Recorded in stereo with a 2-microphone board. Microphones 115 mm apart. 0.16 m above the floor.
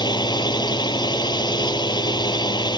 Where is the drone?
40° left (ahead or behind).